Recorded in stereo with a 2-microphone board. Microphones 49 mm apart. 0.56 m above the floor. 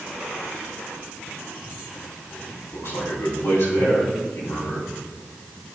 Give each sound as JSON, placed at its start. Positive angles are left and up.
{"t": 2.7, "sound": "a man speaking", "side_deg": 65, "distance_m": 4.0}